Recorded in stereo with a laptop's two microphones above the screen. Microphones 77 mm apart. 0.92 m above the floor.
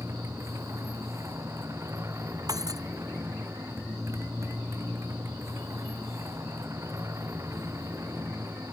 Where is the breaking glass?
50° right (ahead or behind).